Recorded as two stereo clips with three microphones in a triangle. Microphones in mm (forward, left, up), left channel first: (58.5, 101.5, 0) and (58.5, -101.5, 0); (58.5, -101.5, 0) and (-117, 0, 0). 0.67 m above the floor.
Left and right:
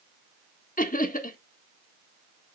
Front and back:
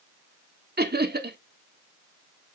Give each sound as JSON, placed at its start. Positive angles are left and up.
{"t": 0.8, "sound": "laughter", "azimuth_deg": 130, "distance_m": 1.3}